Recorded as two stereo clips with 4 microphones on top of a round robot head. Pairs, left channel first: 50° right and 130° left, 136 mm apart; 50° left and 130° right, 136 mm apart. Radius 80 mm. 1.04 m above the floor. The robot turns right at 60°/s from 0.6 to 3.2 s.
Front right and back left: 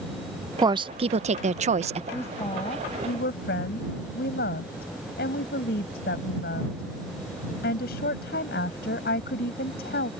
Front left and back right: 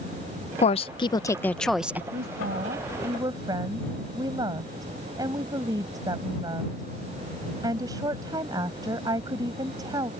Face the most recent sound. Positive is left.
turn(degrees=-65)